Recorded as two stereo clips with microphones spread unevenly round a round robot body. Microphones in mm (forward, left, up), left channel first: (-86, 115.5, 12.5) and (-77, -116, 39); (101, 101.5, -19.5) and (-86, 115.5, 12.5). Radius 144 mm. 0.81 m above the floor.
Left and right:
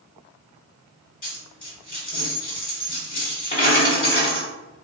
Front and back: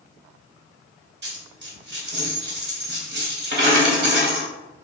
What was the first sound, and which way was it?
A dropped coin, 150° left.